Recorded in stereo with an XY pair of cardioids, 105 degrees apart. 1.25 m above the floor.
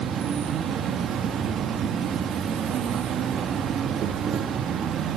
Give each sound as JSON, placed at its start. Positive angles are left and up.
{"t": 0.0, "sound": "an insect", "azimuth_deg": -60, "distance_m": 1.3}